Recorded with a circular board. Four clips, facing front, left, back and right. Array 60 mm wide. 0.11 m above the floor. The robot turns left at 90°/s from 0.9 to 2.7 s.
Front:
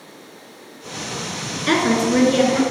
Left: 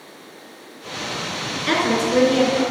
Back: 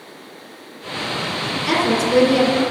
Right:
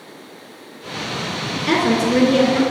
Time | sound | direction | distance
1.7 | a woman speaking | 30° left | 1.5 m